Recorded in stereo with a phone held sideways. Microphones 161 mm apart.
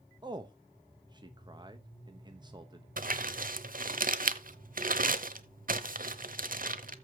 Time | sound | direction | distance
0.2 | a man speaking | 25° right (ahead or behind) | 0.9 m
3.0 | crumpling | 60° right (ahead or behind) | 0.9 m